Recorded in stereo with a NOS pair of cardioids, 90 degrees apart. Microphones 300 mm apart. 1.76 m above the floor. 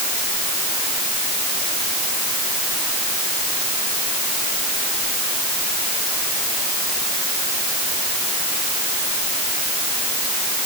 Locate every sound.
Only background noise.